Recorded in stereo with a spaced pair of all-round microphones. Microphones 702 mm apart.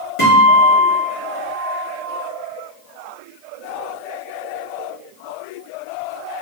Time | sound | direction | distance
0.2 | a guitar | 45° left (ahead or behind) | 2 m